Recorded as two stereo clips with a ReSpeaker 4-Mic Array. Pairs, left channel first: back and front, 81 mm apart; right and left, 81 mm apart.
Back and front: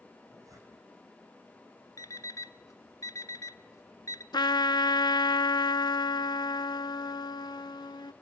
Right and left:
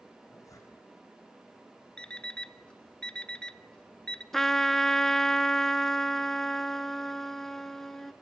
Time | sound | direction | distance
0.2 | a zipper | 45° right | 5 m
2.0 | an alarm clock | 165° right | 0.6 m
4.3 | a trumpet | 175° right | 0.6 m